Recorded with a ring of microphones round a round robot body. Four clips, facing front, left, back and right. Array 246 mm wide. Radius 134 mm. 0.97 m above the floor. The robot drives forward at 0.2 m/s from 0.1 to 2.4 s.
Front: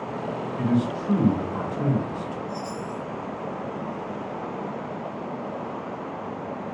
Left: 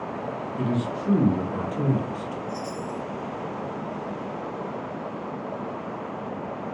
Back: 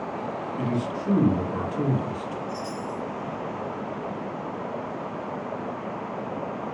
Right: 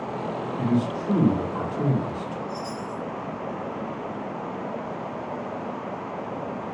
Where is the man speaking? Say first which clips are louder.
Right 3 dB, front 5 dB; 125° left, 1.3 m; by 2.4 s 135° left, 1.5 m.